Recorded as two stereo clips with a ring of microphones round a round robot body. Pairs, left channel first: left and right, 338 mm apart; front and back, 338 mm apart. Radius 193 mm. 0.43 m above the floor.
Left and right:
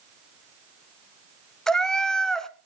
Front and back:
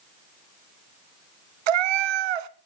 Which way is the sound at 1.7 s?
Straight behind.